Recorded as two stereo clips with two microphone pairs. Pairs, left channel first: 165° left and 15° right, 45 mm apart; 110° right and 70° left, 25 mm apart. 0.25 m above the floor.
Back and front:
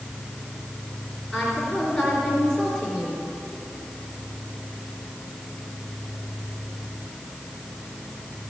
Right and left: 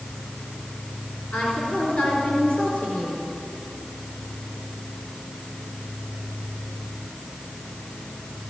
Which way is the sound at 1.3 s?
120° right.